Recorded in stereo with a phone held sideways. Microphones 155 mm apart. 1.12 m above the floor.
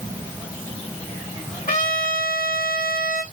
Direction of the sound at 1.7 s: 60° left (ahead or behind).